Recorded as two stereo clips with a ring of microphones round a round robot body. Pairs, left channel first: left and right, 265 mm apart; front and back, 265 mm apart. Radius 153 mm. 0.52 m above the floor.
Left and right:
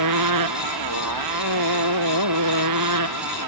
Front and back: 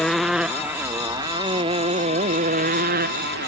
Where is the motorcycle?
90° right; by 3.5 s 120° right.